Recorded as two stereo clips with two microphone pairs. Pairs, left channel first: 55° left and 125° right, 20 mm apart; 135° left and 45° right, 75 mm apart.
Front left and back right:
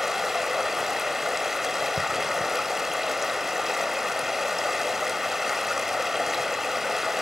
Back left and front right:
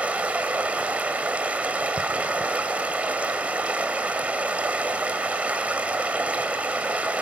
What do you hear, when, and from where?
0.0 s running water: 75° right, 1.3 m